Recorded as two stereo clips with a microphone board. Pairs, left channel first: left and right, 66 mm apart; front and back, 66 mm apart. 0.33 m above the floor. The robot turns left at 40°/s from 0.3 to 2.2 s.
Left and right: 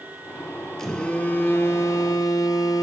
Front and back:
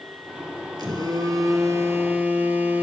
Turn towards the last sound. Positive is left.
turn(degrees=115)